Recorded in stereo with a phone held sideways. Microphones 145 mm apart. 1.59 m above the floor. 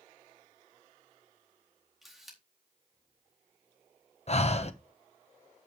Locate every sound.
2.0 s a camera shutter: centre (ahead or behind), 4 m
4.3 s breathing: 45° left (ahead or behind), 0.9 m